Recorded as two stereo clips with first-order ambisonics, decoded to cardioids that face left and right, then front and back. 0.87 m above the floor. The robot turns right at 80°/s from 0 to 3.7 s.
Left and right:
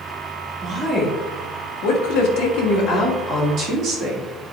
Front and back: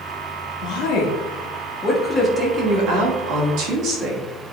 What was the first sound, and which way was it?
A woman speaking, 20° right.